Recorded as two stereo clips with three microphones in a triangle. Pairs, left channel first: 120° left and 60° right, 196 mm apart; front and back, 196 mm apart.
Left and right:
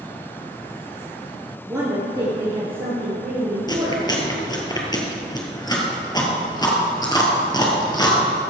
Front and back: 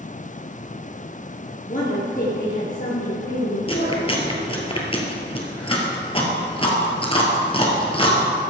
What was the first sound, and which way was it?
A woman speaking, 10° left.